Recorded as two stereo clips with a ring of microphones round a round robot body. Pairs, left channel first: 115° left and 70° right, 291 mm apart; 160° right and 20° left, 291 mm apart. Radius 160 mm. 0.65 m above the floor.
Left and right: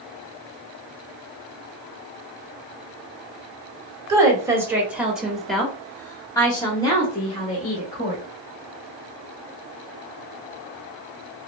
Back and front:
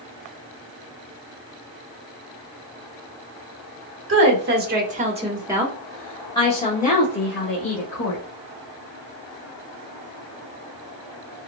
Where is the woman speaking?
5° left, 1.4 m; by 8.2 s 175° left, 1.8 m.